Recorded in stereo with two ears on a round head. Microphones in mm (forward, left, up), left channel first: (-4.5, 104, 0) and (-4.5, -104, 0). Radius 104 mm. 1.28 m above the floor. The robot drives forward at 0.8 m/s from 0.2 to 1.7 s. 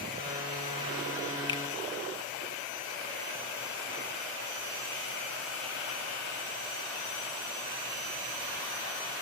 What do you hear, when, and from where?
1.5 s a finger snap: 20° left (ahead or behind), 0.9 m